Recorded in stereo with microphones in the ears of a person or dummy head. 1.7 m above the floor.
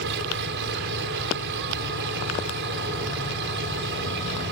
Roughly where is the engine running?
Right.